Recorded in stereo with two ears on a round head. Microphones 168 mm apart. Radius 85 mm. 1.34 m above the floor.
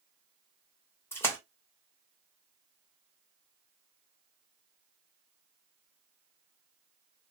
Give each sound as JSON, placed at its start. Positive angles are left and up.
{"t": 1.1, "sound": "a splash", "side_deg": 15, "distance_m": 1.0}